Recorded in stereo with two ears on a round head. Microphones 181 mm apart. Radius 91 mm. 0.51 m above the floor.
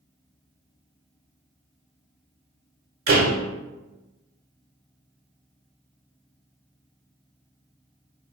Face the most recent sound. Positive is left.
turn(degrees=-45)  # may be behind; listen again after turning